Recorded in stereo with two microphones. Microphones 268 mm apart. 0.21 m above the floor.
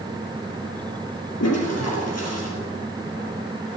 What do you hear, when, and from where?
1.4 s a toilet flushing: 70° left (ahead or behind), 4 m